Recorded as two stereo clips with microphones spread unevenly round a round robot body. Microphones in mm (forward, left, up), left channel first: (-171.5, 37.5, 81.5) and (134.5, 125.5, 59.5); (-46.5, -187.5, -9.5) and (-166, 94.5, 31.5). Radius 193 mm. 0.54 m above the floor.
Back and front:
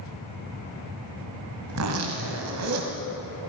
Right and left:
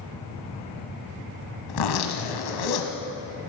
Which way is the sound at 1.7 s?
35° right.